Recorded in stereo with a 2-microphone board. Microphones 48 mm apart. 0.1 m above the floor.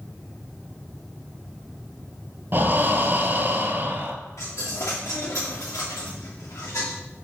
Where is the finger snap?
No finger snap in this recording.